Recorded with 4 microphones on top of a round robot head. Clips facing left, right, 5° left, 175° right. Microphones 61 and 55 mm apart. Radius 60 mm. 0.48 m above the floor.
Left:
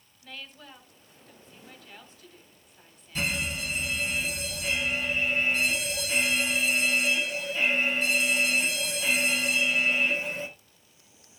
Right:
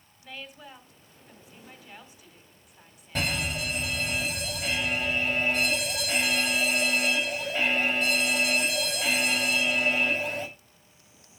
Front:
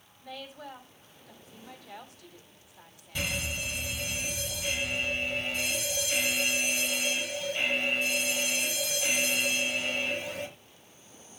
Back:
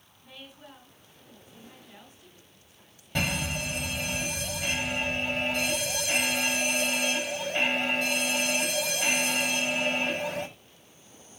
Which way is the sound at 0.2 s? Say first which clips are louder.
Right 2 dB, front 6 dB; 10° right.